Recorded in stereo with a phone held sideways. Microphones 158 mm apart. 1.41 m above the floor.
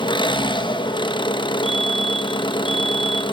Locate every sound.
0.0 s an engine running: 30° left (ahead or behind), 0.9 m
1.6 s a fire alarm: 35° left (ahead or behind), 1.5 m